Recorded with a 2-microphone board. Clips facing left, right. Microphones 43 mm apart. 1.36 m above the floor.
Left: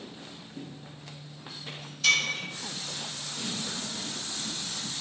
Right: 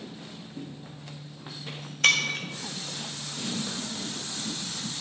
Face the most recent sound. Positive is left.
turn(degrees=-55)  # may be behind; listen again after turning